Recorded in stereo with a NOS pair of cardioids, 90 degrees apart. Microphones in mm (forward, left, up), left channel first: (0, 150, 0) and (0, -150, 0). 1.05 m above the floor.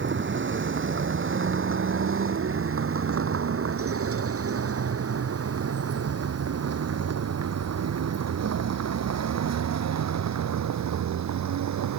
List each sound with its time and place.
0.0 s a vehicle: 40° right; by 12.0 s 65° right